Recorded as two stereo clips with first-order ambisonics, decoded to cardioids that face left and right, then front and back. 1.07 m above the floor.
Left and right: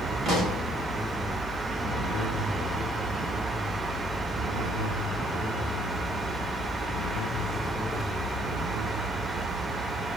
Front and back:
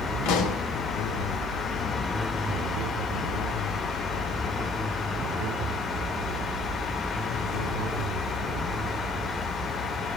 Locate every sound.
0.2 s a pop: 20° right, 3 m